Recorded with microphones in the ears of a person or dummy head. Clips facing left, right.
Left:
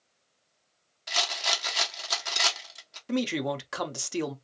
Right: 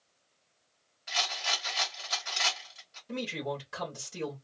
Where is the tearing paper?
No tearing paper in this recording.